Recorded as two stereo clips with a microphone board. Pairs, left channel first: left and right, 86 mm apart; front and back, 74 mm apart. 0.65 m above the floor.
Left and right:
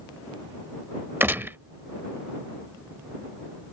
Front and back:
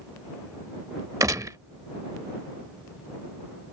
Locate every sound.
1.2 s a gunshot: 150° right